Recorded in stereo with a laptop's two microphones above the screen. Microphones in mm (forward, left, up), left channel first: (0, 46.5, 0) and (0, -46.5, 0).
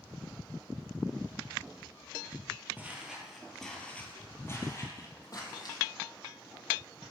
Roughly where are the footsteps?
Centre.